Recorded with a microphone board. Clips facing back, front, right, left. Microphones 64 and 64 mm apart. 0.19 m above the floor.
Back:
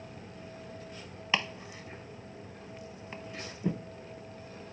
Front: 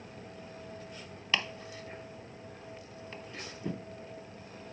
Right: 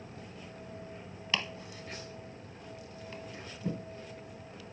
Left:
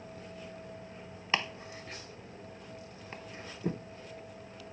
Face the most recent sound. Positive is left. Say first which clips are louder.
# back 1 dB, left 3 dB
turn(degrees=125)